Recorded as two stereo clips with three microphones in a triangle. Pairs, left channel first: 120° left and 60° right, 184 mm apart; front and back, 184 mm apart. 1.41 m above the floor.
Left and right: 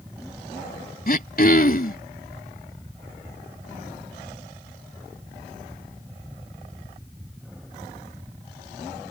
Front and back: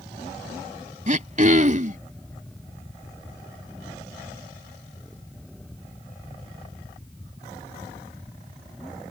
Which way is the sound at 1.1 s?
145° left.